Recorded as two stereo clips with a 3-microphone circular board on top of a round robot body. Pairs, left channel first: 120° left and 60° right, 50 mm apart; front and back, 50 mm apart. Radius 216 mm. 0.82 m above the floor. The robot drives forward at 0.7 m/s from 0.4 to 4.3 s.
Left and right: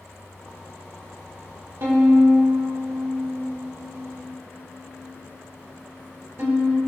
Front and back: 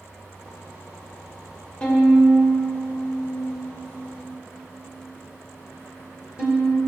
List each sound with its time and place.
1.8 s a violin: 65° right, 2.5 m; by 6.8 s 110° right, 2.5 m